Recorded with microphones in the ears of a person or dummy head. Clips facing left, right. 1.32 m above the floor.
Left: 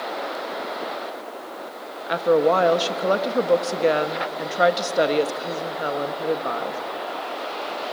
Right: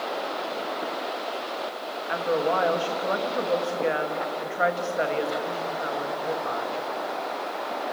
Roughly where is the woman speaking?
Left.